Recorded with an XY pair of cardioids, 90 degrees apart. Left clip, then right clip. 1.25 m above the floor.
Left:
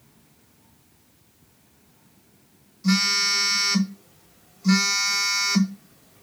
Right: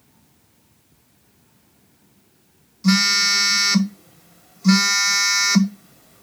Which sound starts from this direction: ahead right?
A phone buzzing, at 2.8 s.